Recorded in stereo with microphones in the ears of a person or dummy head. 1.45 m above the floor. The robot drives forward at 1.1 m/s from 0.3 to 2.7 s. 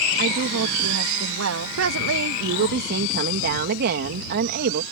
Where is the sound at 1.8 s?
85° right; by 4.8 s 60° right (ahead or behind).